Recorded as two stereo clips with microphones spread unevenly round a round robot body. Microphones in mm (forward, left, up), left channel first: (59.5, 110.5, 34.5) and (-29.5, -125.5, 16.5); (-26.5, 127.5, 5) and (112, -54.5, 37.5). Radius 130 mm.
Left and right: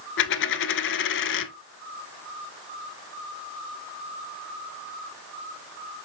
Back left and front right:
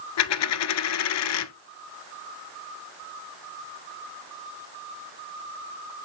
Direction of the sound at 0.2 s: 115° left.